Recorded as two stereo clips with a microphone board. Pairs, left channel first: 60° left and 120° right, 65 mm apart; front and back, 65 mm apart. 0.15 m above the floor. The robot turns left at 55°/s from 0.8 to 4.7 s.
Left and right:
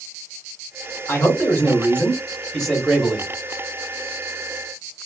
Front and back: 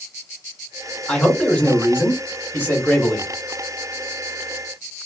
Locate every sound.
1.1 s a man speaking: 70° left, 1.5 m; by 3.3 s 50° right, 1.5 m